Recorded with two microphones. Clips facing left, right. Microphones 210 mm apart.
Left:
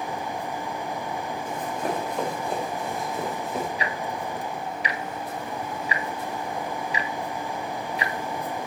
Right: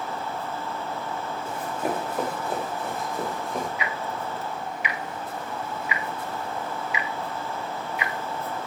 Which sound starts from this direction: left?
Ticking, at 3.8 s.